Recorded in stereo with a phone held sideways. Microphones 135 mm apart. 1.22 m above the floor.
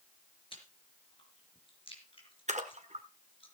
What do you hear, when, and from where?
0.5 s chewing: 40° left (ahead or behind), 4 m
2.5 s a splash: 60° right (ahead or behind), 1.6 m